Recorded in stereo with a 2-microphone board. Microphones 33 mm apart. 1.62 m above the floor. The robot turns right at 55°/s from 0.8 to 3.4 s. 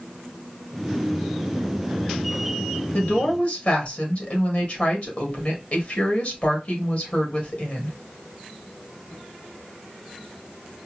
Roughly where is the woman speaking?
Left.